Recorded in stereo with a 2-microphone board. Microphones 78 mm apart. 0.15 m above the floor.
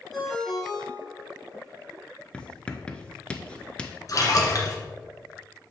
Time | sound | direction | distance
0.1 | a ringtone | centre (ahead or behind) | 2.5 m
2.3 | writing | 15° left (ahead or behind) | 0.7 m
4.1 | a splash | 45° left (ahead or behind) | 1.7 m